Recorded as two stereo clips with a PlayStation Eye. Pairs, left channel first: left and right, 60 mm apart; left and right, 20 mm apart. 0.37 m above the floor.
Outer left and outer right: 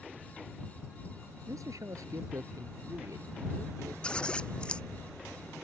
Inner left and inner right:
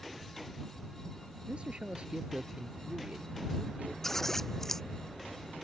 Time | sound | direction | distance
1.5 | a man speaking | 70° right (ahead or behind) | ?
4.0 | scissors | 20° left (ahead or behind) | ?